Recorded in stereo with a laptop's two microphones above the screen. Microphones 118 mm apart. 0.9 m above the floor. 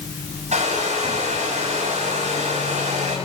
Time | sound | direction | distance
0.5 | a hair dryer | 75° right (ahead or behind) | 7 m